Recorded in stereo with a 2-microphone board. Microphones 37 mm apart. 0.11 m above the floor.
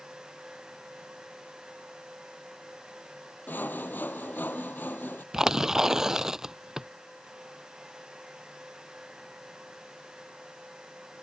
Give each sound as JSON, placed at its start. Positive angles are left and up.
{"t": 3.5, "sound": "sawing", "side_deg": 60}
{"t": 5.3, "sound": "tearing paper", "side_deg": -15}